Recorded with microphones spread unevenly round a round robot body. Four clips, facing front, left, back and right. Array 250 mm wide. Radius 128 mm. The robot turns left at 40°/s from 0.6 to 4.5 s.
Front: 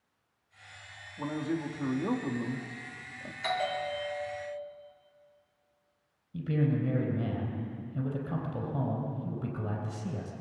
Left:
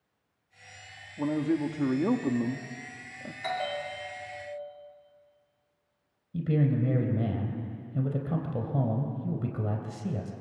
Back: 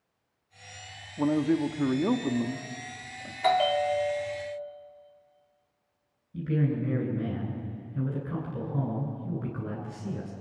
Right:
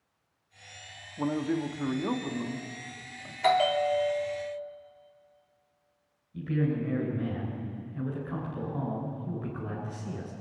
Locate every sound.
1.2 s a man speaking: 175° left, 1.3 m; by 3.3 s 85° left, 1.3 m
3.4 s a bell: 135° right, 1.9 m; by 4.5 s 175° right, 1.9 m
6.3 s a man speaking: 85° left, 3.5 m